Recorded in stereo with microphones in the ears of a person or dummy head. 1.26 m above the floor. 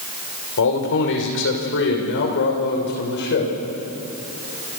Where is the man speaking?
70° left (ahead or behind), 5.5 m; by 3.5 s 50° left (ahead or behind), 6 m.